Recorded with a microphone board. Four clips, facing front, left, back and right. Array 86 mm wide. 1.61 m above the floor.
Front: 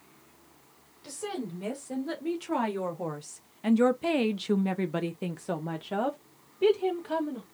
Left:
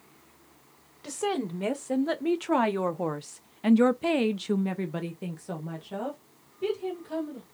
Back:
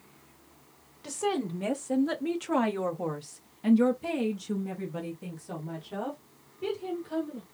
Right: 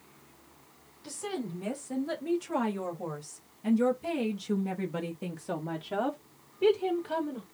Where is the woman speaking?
115° left, 1.9 m; by 7.4 s 30° right, 1.7 m.